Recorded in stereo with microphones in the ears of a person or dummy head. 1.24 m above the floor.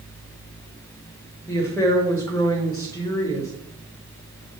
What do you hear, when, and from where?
1.5 s a woman speaking: 15° left (ahead or behind), 2 m